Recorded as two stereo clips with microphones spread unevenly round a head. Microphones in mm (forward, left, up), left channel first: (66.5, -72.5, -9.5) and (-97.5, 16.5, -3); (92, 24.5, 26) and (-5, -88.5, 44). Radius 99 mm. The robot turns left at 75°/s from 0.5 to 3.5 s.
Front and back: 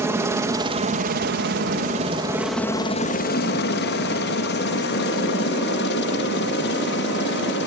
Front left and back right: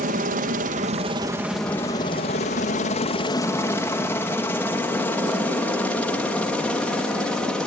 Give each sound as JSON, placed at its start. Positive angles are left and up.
{"t": 0.0, "sound": "a helicopter", "azimuth_deg": -135}